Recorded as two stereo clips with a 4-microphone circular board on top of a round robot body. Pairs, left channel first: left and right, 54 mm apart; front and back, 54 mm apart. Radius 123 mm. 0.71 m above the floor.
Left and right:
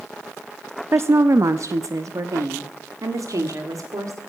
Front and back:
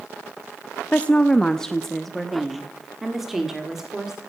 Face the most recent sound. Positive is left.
turn(degrees=-100)